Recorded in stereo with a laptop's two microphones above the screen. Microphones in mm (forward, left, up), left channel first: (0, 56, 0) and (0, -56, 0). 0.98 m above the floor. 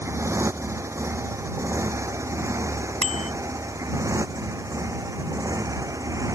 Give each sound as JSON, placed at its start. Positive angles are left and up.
{"t": 0.0, "sound": "a motorcycle", "side_deg": -25}
{"t": 3.0, "sound": "a bicycle bell", "side_deg": -85}